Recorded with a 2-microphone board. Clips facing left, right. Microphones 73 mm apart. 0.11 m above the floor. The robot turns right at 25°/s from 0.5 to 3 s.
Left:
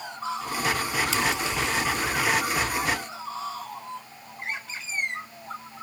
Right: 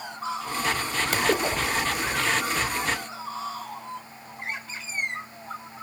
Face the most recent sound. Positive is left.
turn(degrees=-20)